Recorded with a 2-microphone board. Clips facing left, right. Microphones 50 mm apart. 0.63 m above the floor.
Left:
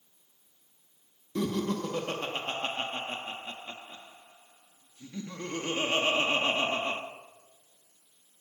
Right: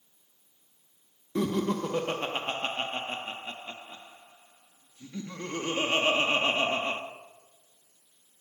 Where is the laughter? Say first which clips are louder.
Right 2 dB; 20° right (ahead or behind), 0.9 m.